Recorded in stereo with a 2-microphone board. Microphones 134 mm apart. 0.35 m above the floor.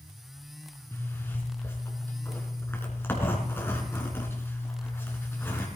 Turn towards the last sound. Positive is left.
turn(degrees=15)  # may be behind; listen again after turning